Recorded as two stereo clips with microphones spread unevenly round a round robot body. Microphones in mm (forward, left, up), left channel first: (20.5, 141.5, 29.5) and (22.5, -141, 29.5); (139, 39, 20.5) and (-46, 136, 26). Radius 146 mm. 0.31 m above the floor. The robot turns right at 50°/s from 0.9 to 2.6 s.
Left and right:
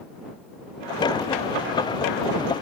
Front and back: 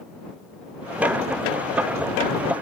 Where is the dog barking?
I don't hear a dog barking.